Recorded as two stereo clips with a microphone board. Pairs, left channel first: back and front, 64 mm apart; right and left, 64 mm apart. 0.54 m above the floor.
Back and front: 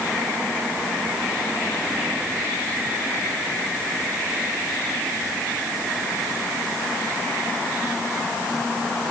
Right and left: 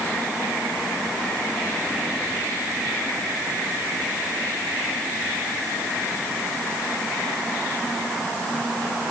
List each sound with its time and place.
Only background noise.